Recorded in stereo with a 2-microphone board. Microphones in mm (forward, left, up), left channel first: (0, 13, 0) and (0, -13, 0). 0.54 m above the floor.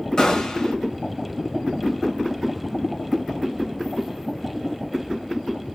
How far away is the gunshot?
About 1.9 m.